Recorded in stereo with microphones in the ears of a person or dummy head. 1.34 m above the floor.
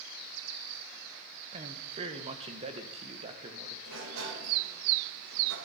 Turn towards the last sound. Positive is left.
turn(degrees=-75)  # may be behind; listen again after turning